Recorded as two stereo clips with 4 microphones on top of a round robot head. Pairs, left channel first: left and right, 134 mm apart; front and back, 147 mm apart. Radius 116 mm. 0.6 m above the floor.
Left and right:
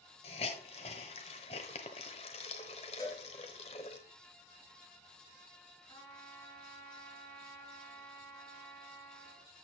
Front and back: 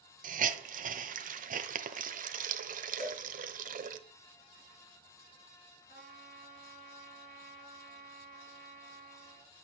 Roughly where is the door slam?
I don't hear a door slam.